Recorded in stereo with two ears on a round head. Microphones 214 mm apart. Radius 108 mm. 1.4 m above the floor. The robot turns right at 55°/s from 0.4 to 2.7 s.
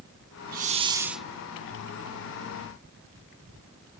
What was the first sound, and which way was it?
A hiss, 40° right.